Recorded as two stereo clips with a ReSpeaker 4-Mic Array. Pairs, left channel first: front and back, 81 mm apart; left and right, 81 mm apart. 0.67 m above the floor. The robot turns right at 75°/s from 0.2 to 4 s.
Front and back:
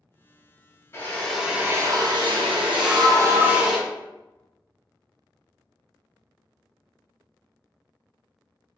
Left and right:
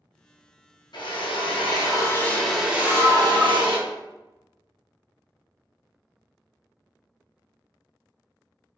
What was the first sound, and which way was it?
A drill, 60° left.